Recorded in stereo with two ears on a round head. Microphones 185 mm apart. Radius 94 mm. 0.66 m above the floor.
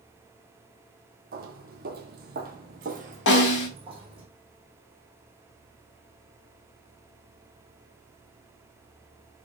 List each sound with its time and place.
1.3 s footsteps: 45° right (ahead or behind), 1.0 m; by 4.3 s 25° right (ahead or behind), 1.4 m
3.3 s a snare drum: 60° left (ahead or behind), 1.2 m